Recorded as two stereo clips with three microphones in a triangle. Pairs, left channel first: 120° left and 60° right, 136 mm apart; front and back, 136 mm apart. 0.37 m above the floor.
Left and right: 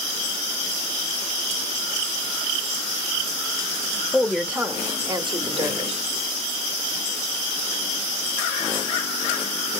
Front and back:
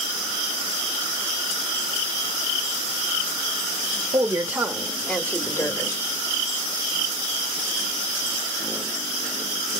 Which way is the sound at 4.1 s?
155° right.